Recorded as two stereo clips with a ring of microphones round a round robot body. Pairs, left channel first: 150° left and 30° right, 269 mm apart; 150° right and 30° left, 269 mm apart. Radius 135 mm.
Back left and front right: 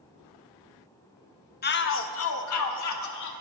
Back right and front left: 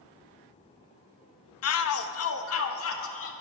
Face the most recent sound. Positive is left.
turn(degrees=170)